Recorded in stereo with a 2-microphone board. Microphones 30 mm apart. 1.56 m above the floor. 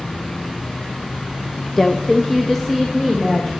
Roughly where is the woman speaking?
Centre.